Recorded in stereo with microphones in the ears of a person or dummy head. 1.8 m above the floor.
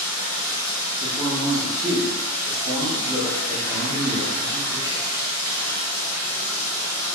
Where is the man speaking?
15° right (ahead or behind), 0.9 m.